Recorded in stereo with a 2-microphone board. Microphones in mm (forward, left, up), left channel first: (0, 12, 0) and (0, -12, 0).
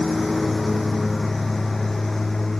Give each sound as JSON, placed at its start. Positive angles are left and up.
{"t": 0.0, "sound": "a lawn mower", "side_deg": 5}